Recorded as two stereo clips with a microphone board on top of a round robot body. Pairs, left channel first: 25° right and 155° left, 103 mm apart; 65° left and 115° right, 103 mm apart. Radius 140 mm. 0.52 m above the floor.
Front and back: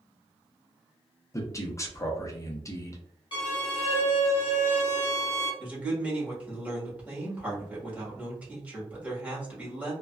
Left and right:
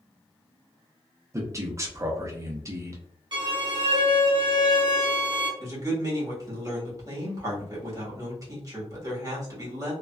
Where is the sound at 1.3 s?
65° right, 0.8 m.